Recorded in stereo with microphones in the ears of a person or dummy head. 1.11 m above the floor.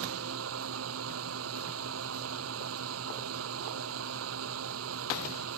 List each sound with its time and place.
0.0 s a fan: 80° right